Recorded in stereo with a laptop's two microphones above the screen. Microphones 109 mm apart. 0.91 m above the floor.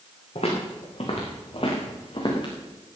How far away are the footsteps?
About 4.5 m.